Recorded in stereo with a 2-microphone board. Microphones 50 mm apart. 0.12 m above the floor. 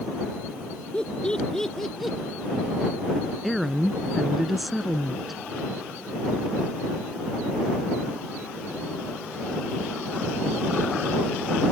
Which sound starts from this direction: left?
Laughter, at 0.9 s.